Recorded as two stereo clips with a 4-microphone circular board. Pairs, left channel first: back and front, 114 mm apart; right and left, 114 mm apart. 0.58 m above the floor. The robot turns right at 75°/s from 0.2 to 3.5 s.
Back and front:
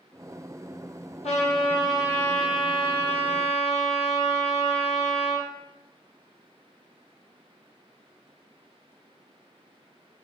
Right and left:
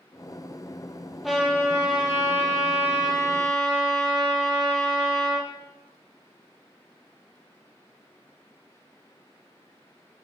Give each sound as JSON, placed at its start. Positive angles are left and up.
{"t": 1.2, "sound": "a trumpet", "azimuth_deg": 175, "distance_m": 3.0}